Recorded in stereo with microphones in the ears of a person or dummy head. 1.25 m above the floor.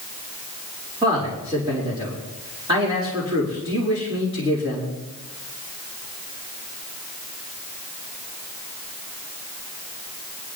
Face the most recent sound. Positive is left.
turn(degrees=-25)  # may be behind; listen again after turning